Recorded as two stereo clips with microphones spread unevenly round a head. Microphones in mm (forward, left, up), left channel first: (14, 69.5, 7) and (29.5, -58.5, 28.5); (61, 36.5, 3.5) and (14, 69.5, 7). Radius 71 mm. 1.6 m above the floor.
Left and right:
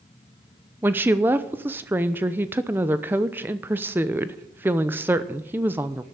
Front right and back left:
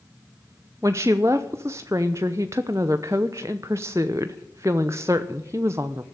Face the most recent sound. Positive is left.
turn(degrees=-155)